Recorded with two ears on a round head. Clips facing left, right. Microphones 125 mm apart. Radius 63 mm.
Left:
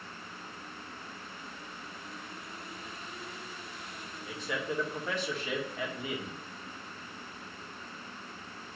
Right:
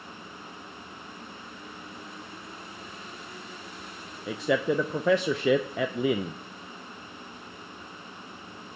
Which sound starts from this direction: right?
A man speaking, at 4.3 s.